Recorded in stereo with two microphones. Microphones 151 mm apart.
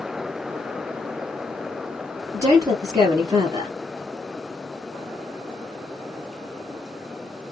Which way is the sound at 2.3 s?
25° right (ahead or behind).